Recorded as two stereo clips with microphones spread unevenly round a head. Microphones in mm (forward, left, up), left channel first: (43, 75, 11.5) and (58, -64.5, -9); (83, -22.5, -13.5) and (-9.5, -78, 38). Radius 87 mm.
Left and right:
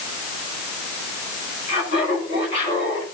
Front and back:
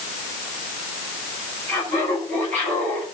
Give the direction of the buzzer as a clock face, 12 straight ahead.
No buzzer in this recording.